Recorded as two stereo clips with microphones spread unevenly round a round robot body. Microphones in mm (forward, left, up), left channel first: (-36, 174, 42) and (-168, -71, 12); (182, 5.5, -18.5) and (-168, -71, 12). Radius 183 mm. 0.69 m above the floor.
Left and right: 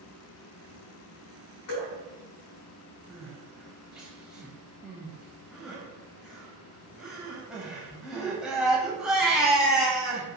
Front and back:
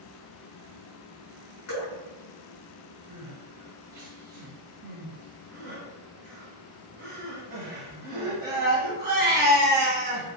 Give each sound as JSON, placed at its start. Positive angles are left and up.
{"t": 1.7, "sound": "dripping", "azimuth_deg": 60, "distance_m": 1.2}
{"t": 3.1, "sound": "crying", "azimuth_deg": 145, "distance_m": 0.6}